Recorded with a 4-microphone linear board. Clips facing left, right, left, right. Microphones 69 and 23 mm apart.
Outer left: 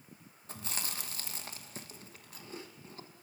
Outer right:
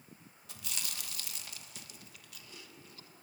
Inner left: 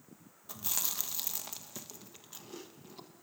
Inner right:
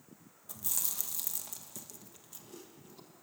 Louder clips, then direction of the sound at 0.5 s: Outer left 4 dB, inner left 2 dB; 35° left (ahead or behind).